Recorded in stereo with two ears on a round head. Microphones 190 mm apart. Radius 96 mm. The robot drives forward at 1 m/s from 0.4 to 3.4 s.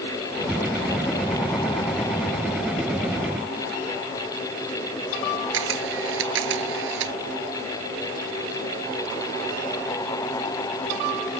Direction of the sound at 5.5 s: 60° right (ahead or behind).